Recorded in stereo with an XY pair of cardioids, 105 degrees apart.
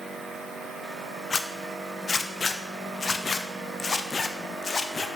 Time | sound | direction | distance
1.3 | a zipper | 35° left | 0.6 m